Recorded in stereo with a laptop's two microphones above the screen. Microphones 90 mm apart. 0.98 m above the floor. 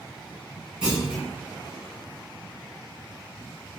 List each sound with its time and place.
0.8 s a clunk: 10° right (ahead or behind), 1.2 m